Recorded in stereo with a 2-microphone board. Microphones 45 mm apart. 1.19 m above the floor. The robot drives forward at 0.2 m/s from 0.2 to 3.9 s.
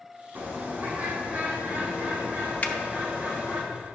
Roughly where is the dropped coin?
I don't hear a dropped coin.